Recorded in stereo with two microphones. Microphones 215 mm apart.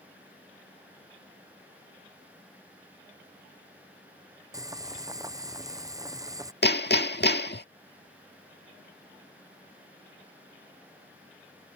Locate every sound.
4.5 s boiling: 15° right (ahead or behind)
6.6 s hammering: 55° left (ahead or behind)